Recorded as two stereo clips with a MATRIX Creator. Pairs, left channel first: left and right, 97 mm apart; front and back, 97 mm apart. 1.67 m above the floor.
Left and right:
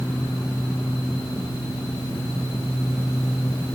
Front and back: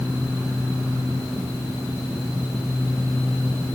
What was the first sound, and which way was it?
Only background noise.